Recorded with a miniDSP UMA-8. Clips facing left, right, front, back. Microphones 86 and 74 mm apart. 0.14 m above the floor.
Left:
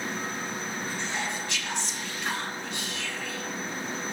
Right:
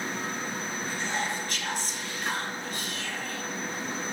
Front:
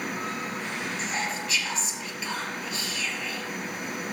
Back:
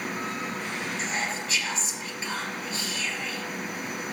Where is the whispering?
130° right, 3.5 m.